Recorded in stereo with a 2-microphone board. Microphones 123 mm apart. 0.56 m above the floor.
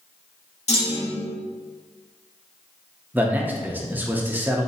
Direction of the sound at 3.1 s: 15° right (ahead or behind).